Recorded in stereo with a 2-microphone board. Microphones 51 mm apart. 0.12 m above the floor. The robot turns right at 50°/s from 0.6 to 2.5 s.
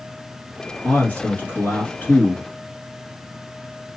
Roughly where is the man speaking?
Ahead left.